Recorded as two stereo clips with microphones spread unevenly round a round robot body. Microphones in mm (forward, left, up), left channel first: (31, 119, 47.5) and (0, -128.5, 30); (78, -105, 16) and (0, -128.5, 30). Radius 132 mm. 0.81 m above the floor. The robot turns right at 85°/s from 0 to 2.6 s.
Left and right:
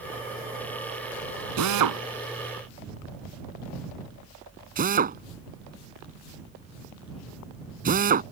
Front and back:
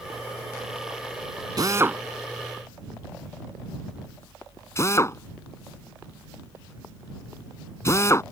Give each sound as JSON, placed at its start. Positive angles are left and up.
{"t": 1.6, "sound": "a drill", "azimuth_deg": -125}